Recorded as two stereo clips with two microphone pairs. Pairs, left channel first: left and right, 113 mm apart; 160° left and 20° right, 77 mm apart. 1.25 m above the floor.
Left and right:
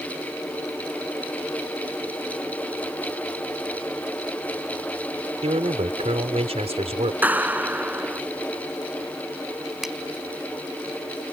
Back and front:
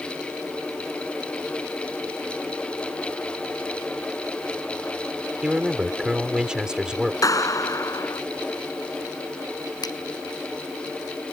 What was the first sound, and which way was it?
A man speaking, 100° right.